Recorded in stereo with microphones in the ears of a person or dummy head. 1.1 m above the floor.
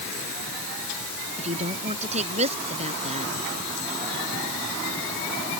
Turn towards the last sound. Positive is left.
turn(degrees=-35)  # may be behind; listen again after turning